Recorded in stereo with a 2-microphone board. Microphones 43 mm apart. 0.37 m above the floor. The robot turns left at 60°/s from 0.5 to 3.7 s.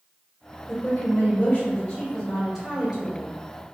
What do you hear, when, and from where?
0.7 s a woman speaking: 100° left, 1.7 m; by 3.3 s 55° right, 1.7 m